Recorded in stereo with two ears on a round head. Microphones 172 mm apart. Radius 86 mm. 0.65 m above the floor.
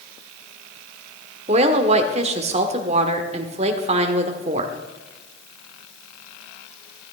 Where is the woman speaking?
35° right (ahead or behind), 1.5 m.